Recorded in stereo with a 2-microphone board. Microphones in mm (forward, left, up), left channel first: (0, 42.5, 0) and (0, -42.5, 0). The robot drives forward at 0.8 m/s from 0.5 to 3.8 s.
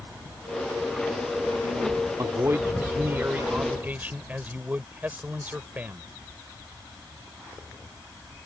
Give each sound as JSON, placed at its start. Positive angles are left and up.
{"t": 2.2, "sound": "a man speaking", "side_deg": -35}